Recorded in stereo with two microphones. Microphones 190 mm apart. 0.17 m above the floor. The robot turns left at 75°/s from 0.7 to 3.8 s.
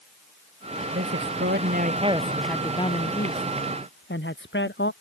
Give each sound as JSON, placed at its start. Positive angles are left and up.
{"t": 0.9, "sound": "a man speaking", "azimuth_deg": -70}